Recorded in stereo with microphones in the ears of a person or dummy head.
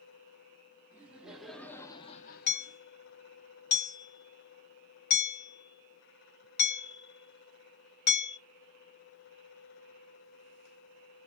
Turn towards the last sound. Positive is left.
turn(degrees=45)  # may be behind; listen again after turning